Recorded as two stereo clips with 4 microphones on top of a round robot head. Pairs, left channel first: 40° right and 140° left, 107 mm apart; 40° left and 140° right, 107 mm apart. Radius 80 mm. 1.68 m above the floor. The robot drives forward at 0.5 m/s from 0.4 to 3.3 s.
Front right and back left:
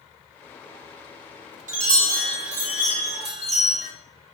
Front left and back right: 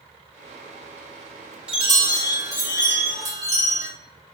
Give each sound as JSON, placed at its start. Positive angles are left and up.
{"t": 1.7, "sound": "a chime", "azimuth_deg": 145, "distance_m": 0.9}